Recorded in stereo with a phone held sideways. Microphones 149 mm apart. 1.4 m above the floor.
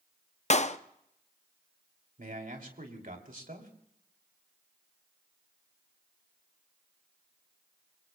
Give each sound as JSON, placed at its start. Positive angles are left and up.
{"t": 0.5, "sound": "a clap", "side_deg": 50, "distance_m": 0.5}
{"t": 2.2, "sound": "a man speaking", "side_deg": -65, "distance_m": 2.5}